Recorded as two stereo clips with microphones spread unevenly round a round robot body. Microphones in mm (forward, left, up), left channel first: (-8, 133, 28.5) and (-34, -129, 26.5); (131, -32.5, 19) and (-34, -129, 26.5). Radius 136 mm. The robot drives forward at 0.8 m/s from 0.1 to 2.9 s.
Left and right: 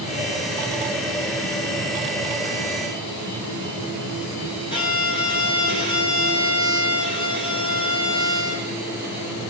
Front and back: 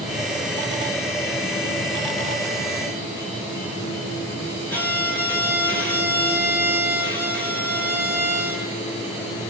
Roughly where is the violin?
Behind left.